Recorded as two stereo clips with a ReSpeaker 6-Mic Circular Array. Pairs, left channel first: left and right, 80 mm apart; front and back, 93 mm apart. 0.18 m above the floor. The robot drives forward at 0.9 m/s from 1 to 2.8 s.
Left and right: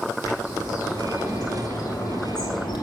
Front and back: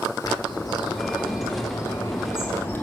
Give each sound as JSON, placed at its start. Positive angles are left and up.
{"t": 0.2, "sound": "a bird", "azimuth_deg": 40, "distance_m": 3.5}